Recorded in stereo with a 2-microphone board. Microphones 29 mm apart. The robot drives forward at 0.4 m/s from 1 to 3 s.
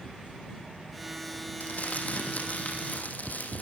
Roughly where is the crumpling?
Left.